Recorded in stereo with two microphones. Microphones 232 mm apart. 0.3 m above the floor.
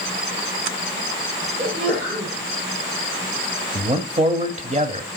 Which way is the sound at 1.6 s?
45° right (ahead or behind).